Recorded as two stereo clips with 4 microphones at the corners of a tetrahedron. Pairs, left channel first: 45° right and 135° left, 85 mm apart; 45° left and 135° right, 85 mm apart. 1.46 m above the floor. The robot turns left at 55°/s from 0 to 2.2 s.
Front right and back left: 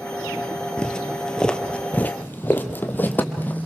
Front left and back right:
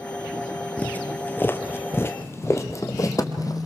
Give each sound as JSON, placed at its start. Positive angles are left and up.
{"t": 0.8, "sound": "footsteps", "azimuth_deg": 15, "distance_m": 1.5}